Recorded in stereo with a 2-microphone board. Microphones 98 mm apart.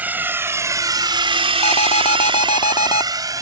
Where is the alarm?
65° left (ahead or behind).